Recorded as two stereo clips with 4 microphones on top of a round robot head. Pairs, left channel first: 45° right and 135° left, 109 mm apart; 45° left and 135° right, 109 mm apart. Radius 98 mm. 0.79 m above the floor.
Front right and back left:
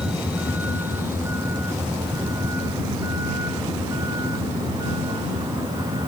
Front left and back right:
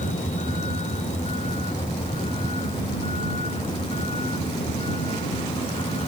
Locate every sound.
0.0 s a vehicle: 55° left; by 6.1 s 80° left